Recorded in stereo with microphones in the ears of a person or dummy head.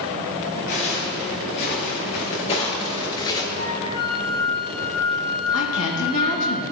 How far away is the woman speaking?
About 1.9 m.